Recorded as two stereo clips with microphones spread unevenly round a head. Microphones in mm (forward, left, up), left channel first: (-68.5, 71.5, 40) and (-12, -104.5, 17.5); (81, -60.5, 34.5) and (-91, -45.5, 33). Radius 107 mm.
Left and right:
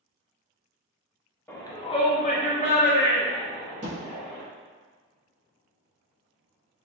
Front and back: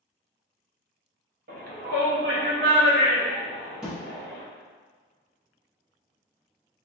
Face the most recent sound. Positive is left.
turn(degrees=-100)